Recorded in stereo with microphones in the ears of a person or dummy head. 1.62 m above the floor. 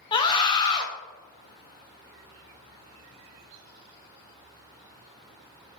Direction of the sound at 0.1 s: 30° left (ahead or behind).